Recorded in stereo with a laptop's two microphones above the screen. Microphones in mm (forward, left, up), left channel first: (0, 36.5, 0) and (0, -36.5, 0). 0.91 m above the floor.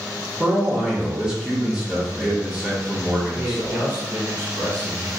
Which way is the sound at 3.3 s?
45° right (ahead or behind).